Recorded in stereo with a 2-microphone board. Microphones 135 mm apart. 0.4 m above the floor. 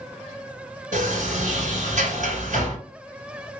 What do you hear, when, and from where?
0.9 s a sliding door: 75° right (ahead or behind), 1.7 m